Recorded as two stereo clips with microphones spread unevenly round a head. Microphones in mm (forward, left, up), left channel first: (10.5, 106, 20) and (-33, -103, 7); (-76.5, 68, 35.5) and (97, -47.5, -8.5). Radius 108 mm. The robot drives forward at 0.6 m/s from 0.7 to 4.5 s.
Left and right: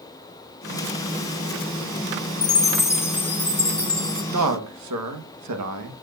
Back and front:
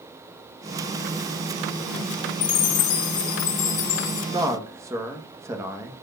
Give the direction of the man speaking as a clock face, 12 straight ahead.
4 o'clock.